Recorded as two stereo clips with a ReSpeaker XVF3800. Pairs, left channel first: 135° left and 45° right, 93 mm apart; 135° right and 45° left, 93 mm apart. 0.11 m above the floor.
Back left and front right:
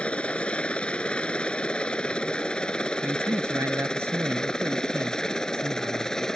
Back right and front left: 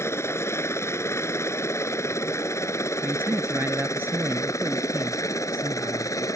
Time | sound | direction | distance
0.0 | a helicopter | 160° right | ?
3.0 | a man speaking | 5° right | ?